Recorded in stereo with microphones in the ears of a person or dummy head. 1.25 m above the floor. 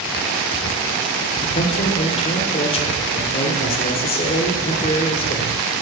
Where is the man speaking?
35° left (ahead or behind), 1.0 m.